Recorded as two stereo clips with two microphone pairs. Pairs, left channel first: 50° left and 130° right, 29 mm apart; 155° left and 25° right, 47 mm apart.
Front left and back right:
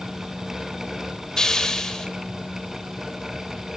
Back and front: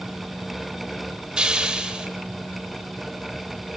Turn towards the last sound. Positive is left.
turn(degrees=15)